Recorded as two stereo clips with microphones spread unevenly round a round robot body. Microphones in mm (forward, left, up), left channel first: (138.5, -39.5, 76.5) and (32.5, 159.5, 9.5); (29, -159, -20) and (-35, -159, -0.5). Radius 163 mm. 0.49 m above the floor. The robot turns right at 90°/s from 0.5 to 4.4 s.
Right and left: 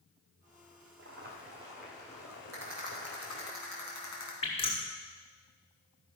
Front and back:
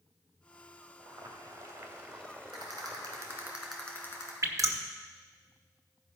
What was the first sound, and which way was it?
Boiling, 120° left.